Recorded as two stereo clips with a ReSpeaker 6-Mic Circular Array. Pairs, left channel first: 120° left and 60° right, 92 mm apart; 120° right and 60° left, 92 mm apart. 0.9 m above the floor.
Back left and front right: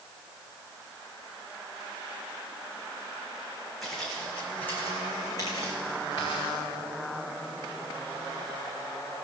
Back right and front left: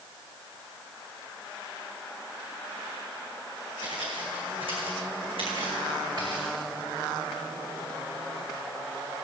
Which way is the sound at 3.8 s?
30° left.